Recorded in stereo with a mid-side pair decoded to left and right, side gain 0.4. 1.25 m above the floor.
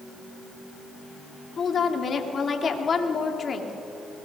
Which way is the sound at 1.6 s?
50° left.